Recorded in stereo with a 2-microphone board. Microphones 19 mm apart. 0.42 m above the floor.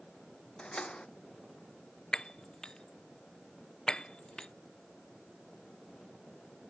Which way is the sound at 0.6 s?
55° left (ahead or behind).